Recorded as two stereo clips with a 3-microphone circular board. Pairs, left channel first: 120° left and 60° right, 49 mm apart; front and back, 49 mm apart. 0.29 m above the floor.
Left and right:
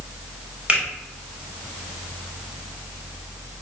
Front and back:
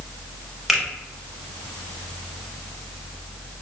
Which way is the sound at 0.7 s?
90° right.